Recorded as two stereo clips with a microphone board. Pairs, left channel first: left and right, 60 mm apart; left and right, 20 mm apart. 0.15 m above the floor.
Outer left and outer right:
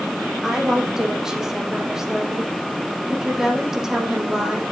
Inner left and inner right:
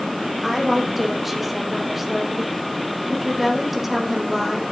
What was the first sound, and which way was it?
A woman speaking, 10° right (ahead or behind).